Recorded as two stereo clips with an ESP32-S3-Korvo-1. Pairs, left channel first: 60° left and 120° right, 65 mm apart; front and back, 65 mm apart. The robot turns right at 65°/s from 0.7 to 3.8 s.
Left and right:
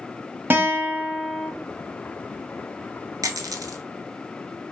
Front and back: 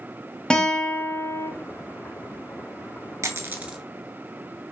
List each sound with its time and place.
0.5 s a guitar: 75° right, 0.8 m; by 1.5 s 20° right, 0.8 m
3.2 s a dropped coin: 140° right, 0.6 m; by 3.8 s 105° right, 0.6 m